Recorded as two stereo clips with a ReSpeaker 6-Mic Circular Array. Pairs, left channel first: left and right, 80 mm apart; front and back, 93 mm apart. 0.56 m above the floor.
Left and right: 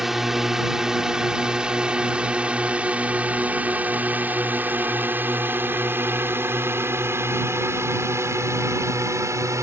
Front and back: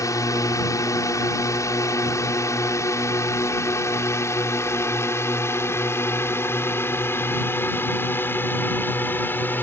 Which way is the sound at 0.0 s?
5° right.